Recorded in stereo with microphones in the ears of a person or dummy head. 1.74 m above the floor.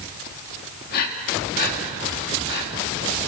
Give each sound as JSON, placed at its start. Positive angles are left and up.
{"t": 0.9, "sound": "breathing", "side_deg": 55, "distance_m": 2.5}